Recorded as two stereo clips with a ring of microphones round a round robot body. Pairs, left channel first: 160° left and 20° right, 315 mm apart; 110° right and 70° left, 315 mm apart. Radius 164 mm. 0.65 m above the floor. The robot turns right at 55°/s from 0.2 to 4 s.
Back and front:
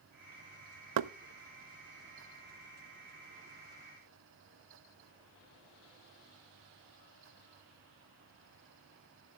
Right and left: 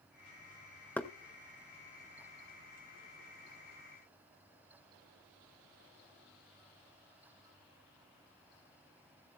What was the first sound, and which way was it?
Knocking, 30° right.